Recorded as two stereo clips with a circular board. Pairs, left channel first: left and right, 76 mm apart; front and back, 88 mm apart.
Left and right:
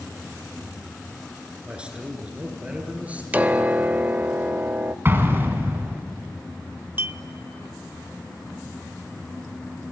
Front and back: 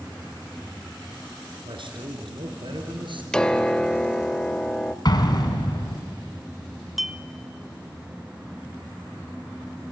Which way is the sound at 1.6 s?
165° right.